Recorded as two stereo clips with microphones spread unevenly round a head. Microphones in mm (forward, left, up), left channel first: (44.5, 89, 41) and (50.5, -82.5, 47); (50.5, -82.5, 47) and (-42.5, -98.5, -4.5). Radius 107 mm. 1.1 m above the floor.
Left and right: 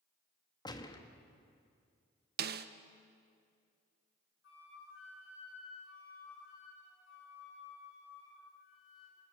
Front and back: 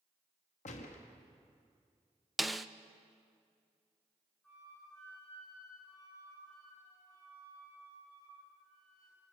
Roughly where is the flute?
Left.